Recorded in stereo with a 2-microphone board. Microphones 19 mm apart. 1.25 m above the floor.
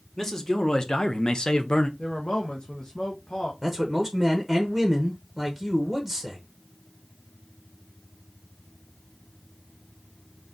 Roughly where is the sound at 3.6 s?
Centre.